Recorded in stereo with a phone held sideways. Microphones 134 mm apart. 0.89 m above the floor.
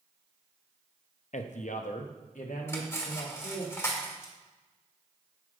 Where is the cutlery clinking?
20° left (ahead or behind), 1.4 m.